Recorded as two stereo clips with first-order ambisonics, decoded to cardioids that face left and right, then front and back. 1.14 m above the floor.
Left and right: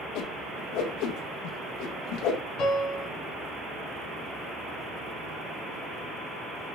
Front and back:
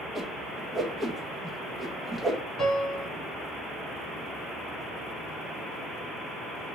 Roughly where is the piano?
Left.